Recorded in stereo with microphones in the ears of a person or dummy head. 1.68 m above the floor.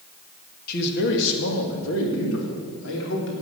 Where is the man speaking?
55° left (ahead or behind), 2 m; by 3.4 s 70° left (ahead or behind), 4 m.